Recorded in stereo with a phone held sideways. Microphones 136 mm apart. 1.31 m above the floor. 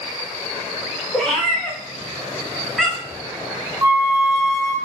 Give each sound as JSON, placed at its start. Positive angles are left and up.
{"t": 1.1, "sound": "a cat meowing", "side_deg": 5, "distance_m": 1.1}
{"t": 3.8, "sound": "a flute", "side_deg": -25, "distance_m": 0.6}